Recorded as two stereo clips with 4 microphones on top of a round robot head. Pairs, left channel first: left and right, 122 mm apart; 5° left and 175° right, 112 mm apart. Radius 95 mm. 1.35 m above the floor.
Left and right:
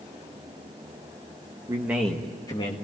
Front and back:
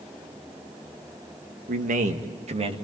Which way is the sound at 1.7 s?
160° right.